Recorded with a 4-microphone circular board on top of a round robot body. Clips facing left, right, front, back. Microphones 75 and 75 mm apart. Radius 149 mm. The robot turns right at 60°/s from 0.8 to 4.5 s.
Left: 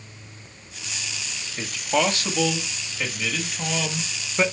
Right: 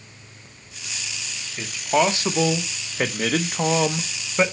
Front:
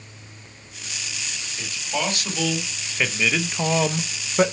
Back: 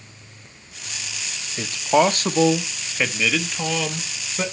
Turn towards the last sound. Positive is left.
turn(degrees=-10)